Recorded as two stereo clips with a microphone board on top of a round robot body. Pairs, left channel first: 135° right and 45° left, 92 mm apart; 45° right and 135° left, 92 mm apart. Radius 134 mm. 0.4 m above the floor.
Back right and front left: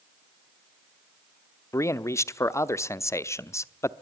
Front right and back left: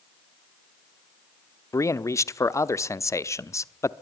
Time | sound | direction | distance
1.7 | a man speaking | 90° right | 1.0 m